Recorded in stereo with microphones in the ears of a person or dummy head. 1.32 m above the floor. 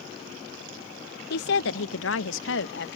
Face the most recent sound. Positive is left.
turn(degrees=70)  # may be behind; listen again after turning